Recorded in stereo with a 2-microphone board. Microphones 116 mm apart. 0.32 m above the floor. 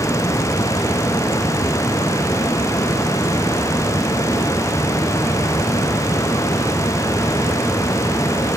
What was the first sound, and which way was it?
Only background noise.